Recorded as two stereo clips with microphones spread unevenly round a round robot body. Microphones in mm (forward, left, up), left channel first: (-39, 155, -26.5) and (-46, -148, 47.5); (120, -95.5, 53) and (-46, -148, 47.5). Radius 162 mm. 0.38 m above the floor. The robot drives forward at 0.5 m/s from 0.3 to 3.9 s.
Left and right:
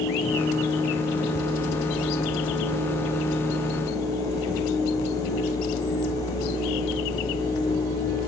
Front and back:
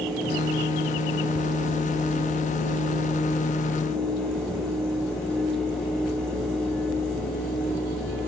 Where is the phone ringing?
I don't hear a phone ringing.